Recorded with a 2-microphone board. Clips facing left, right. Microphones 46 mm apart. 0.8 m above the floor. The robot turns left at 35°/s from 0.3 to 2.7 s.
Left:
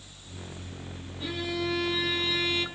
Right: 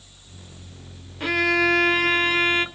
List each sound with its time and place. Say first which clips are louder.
1.2 s a violin: right 12 dB; 85° right, 0.8 m; by 2.6 s 135° right, 0.8 m